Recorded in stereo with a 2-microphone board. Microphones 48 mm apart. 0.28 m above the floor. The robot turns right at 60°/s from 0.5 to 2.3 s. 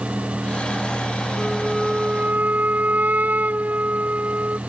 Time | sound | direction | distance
1.4 | a flute | 170° left | ?